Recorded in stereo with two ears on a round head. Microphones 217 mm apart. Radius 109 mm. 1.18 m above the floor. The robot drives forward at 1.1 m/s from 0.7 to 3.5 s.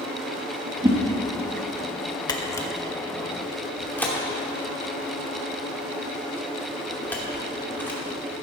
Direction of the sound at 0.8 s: 15° right (ahead or behind).